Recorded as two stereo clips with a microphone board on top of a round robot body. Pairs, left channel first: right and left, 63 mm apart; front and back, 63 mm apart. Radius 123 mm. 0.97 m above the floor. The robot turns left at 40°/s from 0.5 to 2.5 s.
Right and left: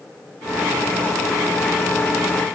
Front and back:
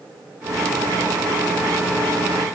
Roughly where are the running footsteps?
No running footsteps in this recording.